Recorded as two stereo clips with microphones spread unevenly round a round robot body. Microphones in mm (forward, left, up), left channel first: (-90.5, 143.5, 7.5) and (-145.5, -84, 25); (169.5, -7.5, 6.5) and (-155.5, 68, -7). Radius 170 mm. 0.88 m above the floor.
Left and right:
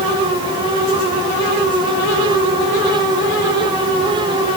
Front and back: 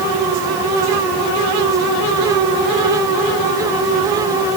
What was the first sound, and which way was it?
Only background noise.